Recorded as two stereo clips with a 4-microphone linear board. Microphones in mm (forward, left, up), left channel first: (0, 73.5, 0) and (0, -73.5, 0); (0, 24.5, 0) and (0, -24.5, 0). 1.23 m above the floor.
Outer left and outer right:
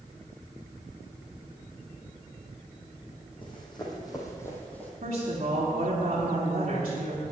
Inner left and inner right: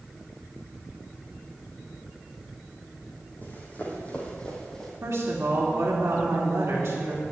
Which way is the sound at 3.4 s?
35° left (ahead or behind).